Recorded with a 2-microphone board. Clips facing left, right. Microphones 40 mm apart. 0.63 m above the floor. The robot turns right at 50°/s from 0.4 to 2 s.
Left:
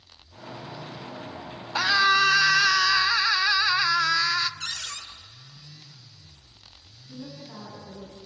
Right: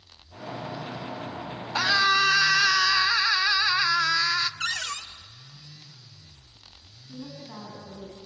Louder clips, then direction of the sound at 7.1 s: Even; 35° right (ahead or behind).